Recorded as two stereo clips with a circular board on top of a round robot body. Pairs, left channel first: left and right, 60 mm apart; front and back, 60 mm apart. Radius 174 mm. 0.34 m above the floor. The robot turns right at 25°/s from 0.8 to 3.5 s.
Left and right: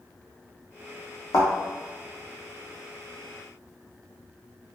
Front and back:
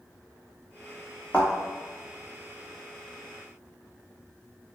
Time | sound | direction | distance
1.3 | a thud | 75° left | 1.2 m